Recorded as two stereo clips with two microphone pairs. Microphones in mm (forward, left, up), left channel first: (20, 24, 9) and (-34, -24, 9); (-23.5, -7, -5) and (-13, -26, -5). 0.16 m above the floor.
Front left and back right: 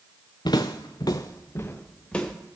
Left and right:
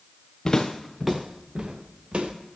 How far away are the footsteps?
About 0.8 m.